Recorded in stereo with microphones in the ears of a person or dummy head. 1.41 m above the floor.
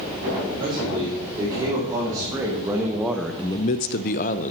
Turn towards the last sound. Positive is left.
turn(degrees=45)  # may be behind; listen again after turning